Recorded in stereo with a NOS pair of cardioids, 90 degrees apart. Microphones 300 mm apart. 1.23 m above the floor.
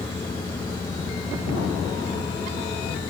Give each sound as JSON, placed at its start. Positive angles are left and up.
{"t": 0.0, "sound": "a fan", "azimuth_deg": 15}